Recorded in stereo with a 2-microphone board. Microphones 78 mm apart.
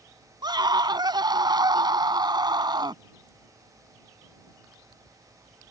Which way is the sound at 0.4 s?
65° right (ahead or behind).